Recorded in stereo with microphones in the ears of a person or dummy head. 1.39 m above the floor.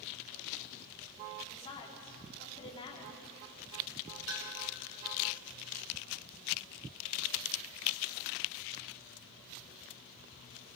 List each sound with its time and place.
1.5 s a woman speaking: 25° left (ahead or behind), 4 m
4.3 s a clink: 85° right, 4.5 m